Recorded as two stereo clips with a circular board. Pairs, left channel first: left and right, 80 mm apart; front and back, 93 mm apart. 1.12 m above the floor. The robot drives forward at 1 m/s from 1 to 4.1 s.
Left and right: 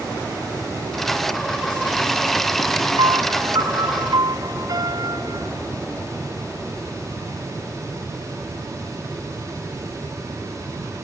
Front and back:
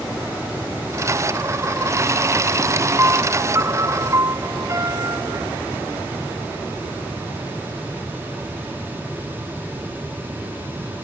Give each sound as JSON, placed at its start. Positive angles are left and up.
{"t": 3.0, "sound": "a piano", "azimuth_deg": -120}